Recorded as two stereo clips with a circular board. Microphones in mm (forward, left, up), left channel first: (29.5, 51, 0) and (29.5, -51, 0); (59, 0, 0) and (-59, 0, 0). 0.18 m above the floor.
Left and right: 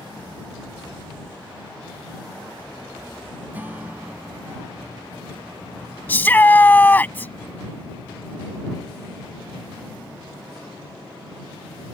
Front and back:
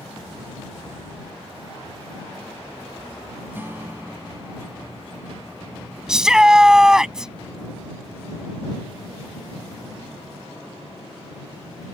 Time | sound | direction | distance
3.5 | a guitar | 135° right | ?
6.1 | a shout | 105° left | ?